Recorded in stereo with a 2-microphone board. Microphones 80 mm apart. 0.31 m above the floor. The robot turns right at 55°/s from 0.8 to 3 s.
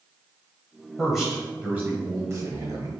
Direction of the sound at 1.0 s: 170° left.